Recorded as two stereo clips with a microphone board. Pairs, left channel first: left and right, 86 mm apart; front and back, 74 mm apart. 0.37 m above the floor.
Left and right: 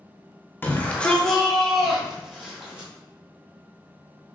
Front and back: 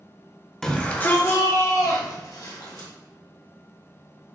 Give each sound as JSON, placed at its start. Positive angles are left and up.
{"t": 0.6, "sound": "a shout", "azimuth_deg": 75, "distance_m": 1.0}